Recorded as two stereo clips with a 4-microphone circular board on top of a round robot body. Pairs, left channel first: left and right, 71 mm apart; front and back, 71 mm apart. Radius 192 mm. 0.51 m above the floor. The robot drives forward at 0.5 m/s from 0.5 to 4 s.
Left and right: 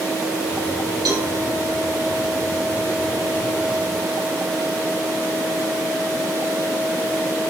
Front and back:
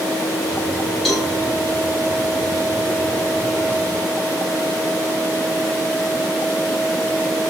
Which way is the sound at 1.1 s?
85° right.